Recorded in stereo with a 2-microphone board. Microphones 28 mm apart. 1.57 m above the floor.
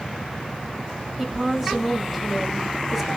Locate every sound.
1.2 s a woman speaking: centre (ahead or behind), 1.9 m